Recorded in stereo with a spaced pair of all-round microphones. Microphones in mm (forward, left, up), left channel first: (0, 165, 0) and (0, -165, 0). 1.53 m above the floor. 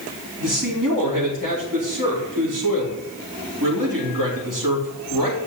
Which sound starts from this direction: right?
A man speaking, at 0.4 s.